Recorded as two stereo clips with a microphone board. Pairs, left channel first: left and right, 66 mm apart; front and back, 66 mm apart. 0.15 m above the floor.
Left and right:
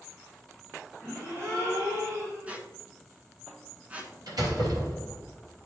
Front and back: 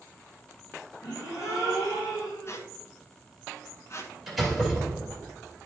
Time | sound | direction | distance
1.0 | a gasp | 40° right | 3.5 m
2.5 | a squeak | 25° right | 1.1 m
4.3 | a door slam | 90° right | 3 m